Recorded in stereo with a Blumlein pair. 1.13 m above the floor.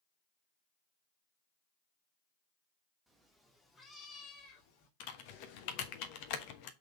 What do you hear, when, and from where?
3.1 s a cat meowing: 5° right, 1.5 m; by 4.9 s 45° left, 1.6 m
5.0 s typing on a keyboard: 45° left, 1.2 m